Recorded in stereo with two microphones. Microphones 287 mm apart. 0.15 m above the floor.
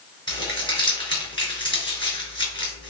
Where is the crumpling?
15° left (ahead or behind), 1.8 m.